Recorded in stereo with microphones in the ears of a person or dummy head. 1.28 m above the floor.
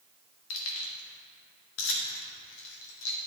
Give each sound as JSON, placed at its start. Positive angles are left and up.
{"t": 0.5, "sound": "keys jangling", "side_deg": 70, "distance_m": 1.2}